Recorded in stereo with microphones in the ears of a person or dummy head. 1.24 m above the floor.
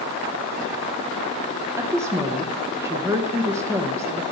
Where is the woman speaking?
15° right (ahead or behind), 0.9 m.